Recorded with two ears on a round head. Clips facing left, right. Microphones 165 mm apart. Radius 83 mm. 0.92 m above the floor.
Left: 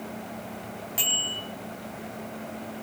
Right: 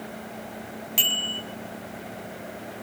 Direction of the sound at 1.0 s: 35° right (ahead or behind).